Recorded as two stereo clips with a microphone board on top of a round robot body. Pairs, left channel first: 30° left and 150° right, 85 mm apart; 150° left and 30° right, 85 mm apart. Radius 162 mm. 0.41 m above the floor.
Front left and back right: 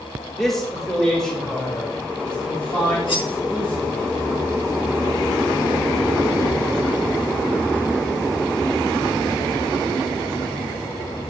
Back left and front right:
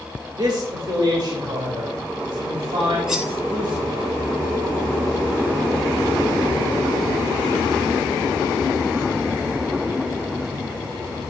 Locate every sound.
0.3 s a man speaking: 55° right, 2.5 m; by 4.1 s 45° right, 6 m
3.1 s cutlery clinking: 50° left, 2.5 m